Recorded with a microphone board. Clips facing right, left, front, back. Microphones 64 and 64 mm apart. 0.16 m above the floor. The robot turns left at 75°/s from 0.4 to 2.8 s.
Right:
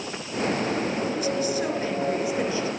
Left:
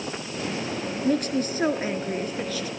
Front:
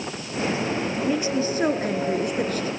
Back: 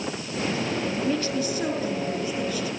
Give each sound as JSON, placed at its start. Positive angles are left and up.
{"t": 1.0, "sound": "a woman speaking", "azimuth_deg": 85, "distance_m": 2.5}